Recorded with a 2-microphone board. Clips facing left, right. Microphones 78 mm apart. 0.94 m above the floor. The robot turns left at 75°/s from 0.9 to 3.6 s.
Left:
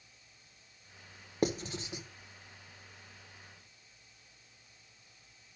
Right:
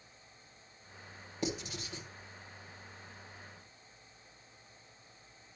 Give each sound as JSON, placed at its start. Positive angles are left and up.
{"t": 1.4, "sound": "writing", "side_deg": 55, "distance_m": 1.2}